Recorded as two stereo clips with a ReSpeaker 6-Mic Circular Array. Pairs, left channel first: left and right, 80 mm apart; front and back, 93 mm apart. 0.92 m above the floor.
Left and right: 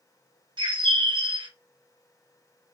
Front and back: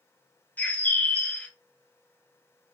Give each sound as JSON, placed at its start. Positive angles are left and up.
{"t": 0.6, "sound": "a bird", "azimuth_deg": -75, "distance_m": 0.6}